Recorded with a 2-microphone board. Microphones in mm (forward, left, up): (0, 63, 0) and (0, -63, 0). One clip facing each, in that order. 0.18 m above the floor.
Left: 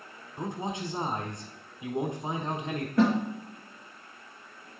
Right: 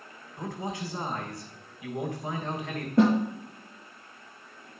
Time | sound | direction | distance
0.4 | a man speaking | 25° left (ahead or behind) | 1.0 m
3.0 | a snare drum | 25° right (ahead or behind) | 4 m